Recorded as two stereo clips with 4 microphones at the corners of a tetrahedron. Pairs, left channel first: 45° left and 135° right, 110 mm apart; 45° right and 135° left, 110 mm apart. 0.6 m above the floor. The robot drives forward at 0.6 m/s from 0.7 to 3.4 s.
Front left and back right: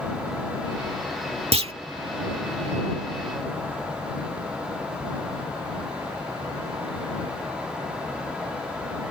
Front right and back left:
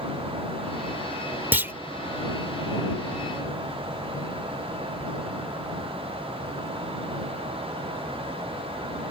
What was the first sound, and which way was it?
A clunk, 155° right.